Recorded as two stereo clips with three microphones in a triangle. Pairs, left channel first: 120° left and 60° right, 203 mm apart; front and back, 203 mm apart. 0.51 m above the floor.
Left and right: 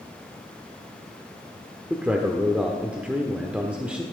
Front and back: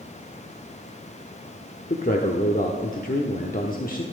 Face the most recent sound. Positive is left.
turn(degrees=20)